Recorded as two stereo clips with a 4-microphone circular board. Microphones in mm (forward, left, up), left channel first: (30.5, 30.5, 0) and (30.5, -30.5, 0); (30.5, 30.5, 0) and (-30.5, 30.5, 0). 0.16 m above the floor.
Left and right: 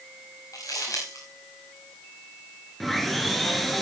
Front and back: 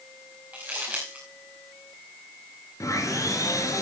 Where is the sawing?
Straight ahead, 2.5 m.